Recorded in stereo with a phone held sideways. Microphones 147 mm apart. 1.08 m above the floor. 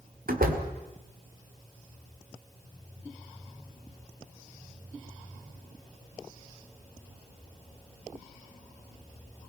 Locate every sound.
0.3 s a door slam: 85° right, 2 m